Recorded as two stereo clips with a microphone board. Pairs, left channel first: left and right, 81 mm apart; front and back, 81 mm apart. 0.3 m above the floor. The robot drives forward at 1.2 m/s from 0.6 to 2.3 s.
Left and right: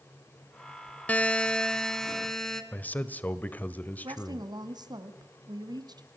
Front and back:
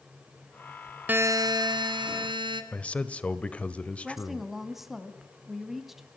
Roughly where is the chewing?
I don't hear chewing.